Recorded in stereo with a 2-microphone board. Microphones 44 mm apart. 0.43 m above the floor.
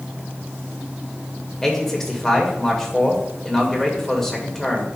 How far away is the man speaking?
About 1.8 m.